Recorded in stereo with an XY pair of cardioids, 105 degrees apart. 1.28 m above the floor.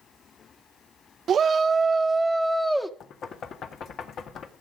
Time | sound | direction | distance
1.3 | a shout | 55° right | 0.6 m
3.0 | knocking | 60° left | 1.6 m